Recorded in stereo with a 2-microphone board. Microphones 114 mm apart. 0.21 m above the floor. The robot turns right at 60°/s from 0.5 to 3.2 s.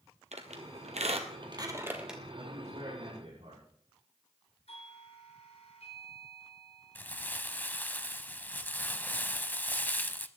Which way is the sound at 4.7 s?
65° left (ahead or behind).